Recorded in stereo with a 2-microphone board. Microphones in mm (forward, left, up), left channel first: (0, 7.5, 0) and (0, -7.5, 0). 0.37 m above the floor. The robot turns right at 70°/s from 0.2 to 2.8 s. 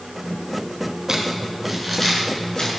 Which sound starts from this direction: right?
Crumpling, at 1.1 s.